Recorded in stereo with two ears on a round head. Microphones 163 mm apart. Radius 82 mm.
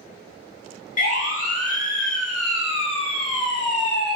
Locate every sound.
1.0 s a siren: 45° left (ahead or behind), 8 m; by 4.2 s 25° left (ahead or behind), 6 m